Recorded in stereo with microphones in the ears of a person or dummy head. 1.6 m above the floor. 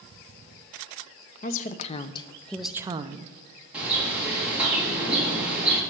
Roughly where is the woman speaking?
Left.